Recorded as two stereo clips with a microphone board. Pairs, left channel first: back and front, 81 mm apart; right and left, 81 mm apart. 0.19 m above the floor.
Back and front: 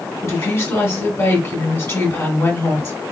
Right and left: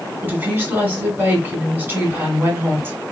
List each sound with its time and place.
0.2 s a woman speaking: 140° left, 1.6 m